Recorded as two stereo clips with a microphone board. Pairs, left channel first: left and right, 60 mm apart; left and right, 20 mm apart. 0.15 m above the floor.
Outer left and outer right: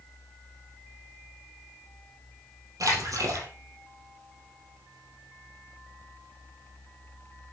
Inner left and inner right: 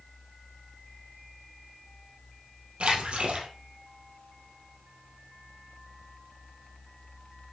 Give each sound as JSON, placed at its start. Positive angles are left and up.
{"t": 2.8, "sound": "a splash", "side_deg": -70, "distance_m": 3.0}